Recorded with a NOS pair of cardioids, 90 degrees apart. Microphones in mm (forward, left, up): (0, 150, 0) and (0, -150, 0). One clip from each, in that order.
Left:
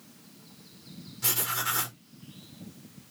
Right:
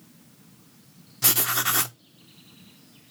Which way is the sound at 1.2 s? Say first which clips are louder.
Right 5 dB; 40° right.